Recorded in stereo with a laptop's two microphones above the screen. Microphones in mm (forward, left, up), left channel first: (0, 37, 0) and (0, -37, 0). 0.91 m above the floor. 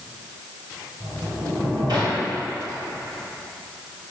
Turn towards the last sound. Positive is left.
turn(degrees=-85)